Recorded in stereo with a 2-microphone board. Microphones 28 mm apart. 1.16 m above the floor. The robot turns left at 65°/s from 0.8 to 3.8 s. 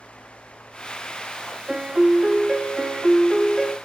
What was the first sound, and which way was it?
A piano, 25° right.